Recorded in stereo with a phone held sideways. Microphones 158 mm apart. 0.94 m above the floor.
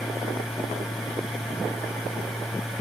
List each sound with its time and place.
0.0 s a machine running: centre (ahead or behind), 3 m